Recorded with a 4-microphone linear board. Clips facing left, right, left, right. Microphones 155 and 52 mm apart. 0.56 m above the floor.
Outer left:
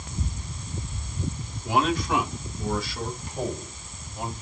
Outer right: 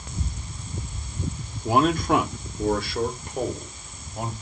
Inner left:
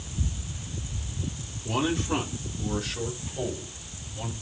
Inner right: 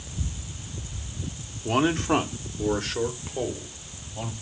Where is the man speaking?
40° right (ahead or behind), 0.9 m; by 4.3 s 55° right (ahead or behind), 2.5 m.